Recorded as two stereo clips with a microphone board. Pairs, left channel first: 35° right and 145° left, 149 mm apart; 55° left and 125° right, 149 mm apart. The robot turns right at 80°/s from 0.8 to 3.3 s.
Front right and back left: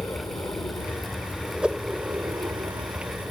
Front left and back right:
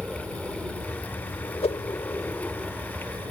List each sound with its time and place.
0.0 s an aircraft: 50° right; by 3.3 s 150° right
1.6 s a whoosh: 65° left; by 1.8 s 75° left